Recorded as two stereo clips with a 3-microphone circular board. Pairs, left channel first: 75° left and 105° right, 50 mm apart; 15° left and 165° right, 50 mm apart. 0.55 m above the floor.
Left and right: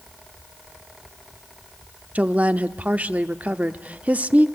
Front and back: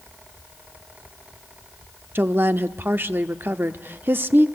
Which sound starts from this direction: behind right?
A woman speaking, at 2.1 s.